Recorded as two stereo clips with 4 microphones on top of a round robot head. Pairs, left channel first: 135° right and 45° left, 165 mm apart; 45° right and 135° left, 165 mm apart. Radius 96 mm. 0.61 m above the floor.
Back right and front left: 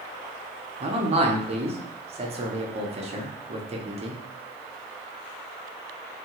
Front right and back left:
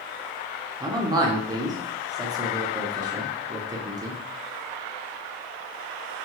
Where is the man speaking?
75° left, 0.7 m.